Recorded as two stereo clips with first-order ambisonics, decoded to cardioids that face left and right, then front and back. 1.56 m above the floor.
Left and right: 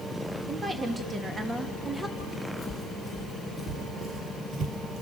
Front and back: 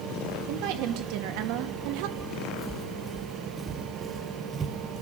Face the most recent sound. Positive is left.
turn(degrees=-125)